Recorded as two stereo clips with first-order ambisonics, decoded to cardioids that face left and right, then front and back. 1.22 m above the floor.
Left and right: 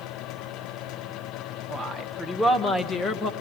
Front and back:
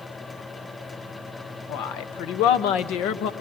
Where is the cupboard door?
I don't hear a cupboard door.